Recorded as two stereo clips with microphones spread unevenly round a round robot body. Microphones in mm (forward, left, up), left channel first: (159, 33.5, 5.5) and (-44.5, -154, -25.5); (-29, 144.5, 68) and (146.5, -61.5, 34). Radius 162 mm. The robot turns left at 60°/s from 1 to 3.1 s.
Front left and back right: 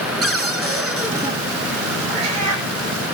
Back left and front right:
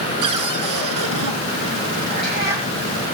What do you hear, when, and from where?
0.2 s a cupboard door: 50° right, 5 m; by 1.3 s 70° right, 5 m
2.1 s a cat meowing: 160° right, 9.5 m; by 2.7 s 165° left, 9.5 m